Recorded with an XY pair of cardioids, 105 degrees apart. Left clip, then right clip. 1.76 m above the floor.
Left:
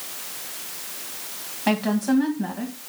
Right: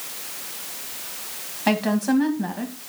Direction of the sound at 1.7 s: 10° right.